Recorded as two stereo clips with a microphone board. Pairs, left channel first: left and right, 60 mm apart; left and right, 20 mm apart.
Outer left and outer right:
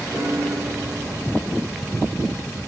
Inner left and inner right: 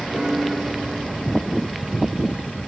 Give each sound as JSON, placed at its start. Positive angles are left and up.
{"t": 0.1, "sound": "a piano", "side_deg": -25, "distance_m": 7.0}